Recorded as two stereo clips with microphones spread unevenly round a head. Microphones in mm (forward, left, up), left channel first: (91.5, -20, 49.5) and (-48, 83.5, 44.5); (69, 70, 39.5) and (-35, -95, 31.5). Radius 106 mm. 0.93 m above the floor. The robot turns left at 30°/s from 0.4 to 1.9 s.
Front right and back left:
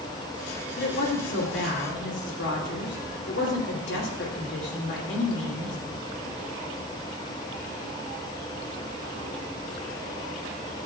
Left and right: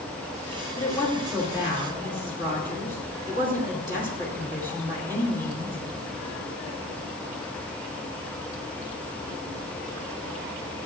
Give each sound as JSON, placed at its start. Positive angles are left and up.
{"t": 0.8, "sound": "a woman speaking", "azimuth_deg": -20, "distance_m": 2.5}